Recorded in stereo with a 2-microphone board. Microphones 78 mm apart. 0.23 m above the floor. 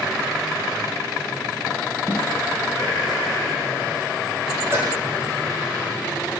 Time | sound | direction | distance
2.1 | a snare drum | 30° right (ahead or behind) | 7 m
4.7 | a cowbell | 30° right (ahead or behind) | 5.5 m